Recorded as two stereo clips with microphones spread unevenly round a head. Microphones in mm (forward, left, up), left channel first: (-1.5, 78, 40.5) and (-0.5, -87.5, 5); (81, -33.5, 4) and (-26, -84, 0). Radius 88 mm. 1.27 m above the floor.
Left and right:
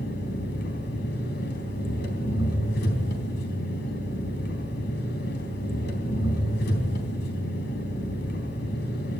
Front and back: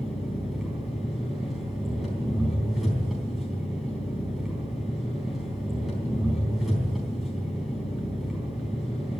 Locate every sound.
0.0 s an engine running: 115° left, 4 m